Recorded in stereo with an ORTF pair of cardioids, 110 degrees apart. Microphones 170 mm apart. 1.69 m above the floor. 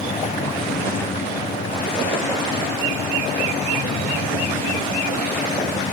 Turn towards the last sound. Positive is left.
turn(degrees=50)